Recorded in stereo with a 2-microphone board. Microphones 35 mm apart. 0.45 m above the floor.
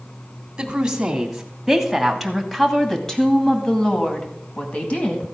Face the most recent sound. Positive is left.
turn(degrees=45)  # may be behind; listen again after turning